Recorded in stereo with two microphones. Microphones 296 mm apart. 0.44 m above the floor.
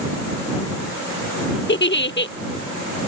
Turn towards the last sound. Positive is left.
turn(degrees=40)  # may be behind; listen again after turning